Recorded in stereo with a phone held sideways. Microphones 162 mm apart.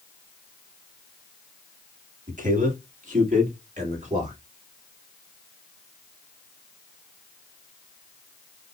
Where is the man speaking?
55° right (ahead or behind), 1.7 m; by 4.4 s 50° right (ahead or behind), 3 m.